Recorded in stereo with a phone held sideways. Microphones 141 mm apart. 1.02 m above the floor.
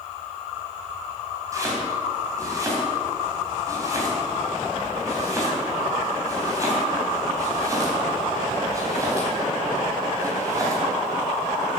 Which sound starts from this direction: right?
Chopping, at 1.5 s.